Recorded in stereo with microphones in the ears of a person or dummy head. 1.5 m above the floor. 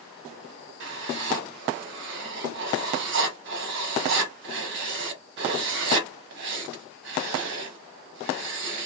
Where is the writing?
60° right (ahead or behind), 0.9 m.